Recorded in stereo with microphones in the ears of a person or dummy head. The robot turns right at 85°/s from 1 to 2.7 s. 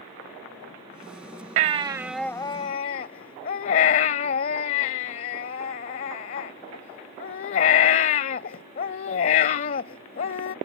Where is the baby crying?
50° right; by 10.6 s 45° left.